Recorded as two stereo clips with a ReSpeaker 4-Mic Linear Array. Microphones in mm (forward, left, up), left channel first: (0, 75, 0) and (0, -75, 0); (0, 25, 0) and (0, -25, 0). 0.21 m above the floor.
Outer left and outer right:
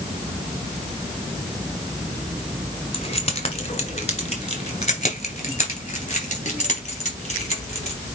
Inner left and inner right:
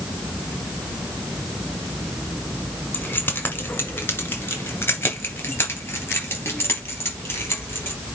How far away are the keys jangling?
About 1.6 m.